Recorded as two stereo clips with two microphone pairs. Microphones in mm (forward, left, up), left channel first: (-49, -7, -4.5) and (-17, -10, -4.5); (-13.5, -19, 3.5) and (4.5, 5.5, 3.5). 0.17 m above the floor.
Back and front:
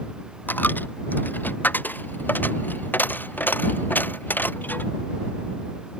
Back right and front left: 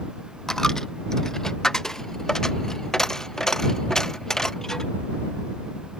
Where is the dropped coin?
160° left.